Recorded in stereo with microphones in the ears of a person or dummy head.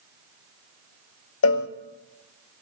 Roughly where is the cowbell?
Left.